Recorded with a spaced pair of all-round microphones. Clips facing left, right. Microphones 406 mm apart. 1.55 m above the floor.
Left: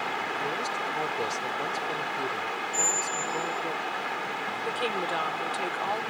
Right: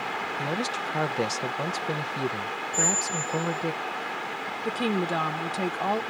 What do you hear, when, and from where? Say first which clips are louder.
0.4 s a man speaking: right 6 dB; 85° right
2.7 s a squeak: right 3 dB; 25° left (ahead or behind)
4.7 s a woman speaking: right 6 dB; 60° right (ahead or behind)